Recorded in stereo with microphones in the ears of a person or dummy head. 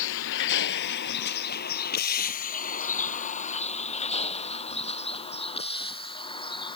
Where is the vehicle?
70° left (ahead or behind); by 6.8 s 25° left (ahead or behind).